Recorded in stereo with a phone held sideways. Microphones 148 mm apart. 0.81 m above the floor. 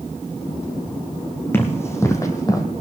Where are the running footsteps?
15° left (ahead or behind), 1.7 m; by 2.6 s 25° left (ahead or behind), 1.1 m.